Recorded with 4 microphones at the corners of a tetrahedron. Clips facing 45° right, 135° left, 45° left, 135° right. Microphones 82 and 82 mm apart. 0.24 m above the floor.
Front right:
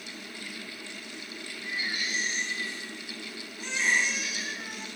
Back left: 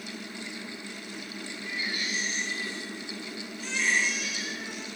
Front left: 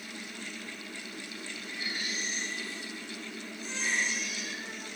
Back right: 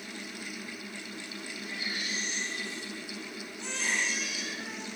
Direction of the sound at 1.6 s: 115° right.